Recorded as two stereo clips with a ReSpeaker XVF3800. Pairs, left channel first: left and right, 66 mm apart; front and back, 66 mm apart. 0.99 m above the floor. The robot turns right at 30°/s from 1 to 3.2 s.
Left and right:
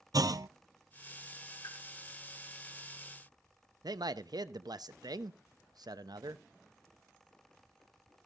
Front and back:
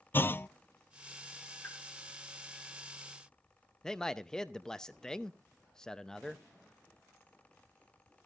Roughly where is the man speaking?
Right.